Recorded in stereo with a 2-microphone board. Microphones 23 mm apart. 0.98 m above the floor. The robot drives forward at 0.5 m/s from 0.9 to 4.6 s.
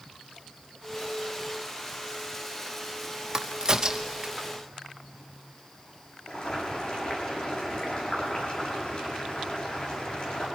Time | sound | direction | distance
3.3 | a crack | 30° right (ahead or behind) | 0.9 m
6.3 | boiling | 50° left (ahead or behind) | 8 m